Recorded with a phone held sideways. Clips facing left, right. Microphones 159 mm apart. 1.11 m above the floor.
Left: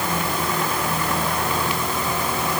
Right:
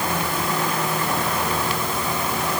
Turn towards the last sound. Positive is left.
No sound to turn to.